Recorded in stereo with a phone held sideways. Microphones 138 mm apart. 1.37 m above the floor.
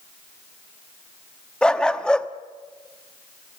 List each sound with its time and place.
1.6 s a dog barking: 5° left (ahead or behind), 0.9 m